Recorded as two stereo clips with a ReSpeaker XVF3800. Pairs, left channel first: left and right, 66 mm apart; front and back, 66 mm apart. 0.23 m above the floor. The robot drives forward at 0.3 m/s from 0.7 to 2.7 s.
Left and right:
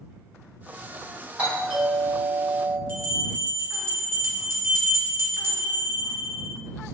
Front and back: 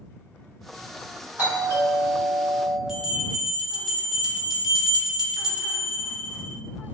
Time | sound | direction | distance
1.4 | a doorbell | 140° right | 2.0 m
2.9 | a bell | 100° right | 0.9 m